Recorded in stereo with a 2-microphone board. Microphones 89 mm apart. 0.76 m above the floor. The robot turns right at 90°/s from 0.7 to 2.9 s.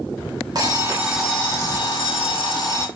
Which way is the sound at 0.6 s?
45° right.